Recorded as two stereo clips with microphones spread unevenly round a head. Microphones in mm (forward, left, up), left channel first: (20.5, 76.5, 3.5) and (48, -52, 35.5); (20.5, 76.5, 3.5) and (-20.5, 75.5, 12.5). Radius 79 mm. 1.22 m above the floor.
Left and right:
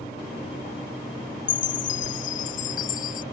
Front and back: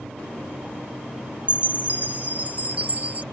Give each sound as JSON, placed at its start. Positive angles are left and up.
{"t": 1.5, "sound": "a chime", "azimuth_deg": 130}